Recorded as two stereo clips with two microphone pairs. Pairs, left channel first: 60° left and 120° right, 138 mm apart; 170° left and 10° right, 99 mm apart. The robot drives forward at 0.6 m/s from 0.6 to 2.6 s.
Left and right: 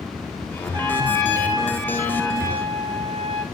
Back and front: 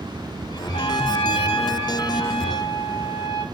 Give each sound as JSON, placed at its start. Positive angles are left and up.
{"t": 0.7, "sound": "a trumpet", "azimuth_deg": 180, "distance_m": 2.0}